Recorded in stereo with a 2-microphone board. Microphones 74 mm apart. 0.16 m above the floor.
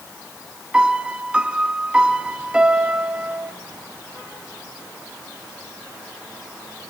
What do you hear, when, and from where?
0.7 s a piano: 15° right (ahead or behind), 1.2 m